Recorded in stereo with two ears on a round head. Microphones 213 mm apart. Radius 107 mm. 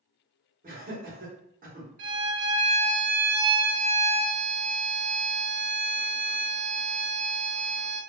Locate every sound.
0.6 s laughter: 35° right (ahead or behind), 1.4 m
2.0 s a violin: 35° right (ahead or behind), 1.9 m